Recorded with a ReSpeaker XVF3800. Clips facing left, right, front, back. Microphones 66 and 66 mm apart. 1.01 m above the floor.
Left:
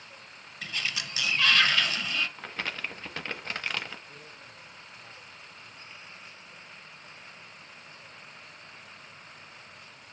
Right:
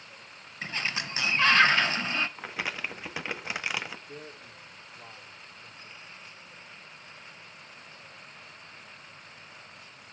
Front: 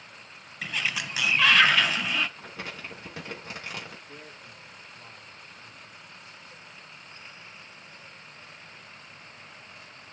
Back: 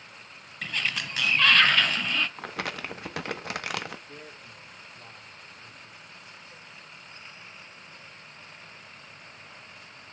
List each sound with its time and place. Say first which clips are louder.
0.6 s a sliding door: right 2 dB, even; 80° right, 0.9 m
2.4 s crumpling: right 1 dB, back 5 dB; 170° right, 1.1 m
4.1 s a man speaking: right 4 dB, back 1 dB; 110° right, 4 m